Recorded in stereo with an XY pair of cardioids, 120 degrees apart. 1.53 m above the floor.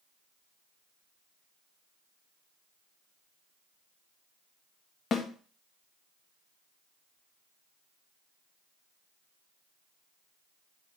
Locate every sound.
5.1 s a snare drum: 45° left, 1.7 m